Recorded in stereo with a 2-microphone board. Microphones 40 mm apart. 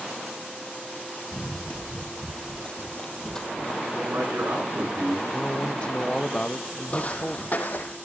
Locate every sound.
1.3 s running footsteps: 35° left (ahead or behind), 1.8 m; by 3.8 s 15° left (ahead or behind), 2.5 m
3.9 s a man speaking: 90° right, 10 m
5.3 s a man speaking: 25° left (ahead or behind), 0.7 m
6.9 s footsteps: 35° left (ahead or behind), 2 m; by 8.0 s 50° left (ahead or behind), 3 m